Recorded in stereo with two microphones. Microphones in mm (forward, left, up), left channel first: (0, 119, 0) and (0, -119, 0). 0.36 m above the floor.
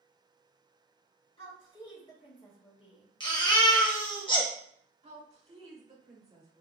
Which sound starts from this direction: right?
A woman speaking, at 5.0 s.